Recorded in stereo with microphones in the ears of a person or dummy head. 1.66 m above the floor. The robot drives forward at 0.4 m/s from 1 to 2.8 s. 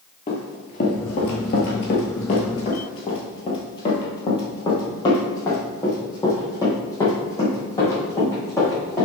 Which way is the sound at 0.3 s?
25° left (ahead or behind).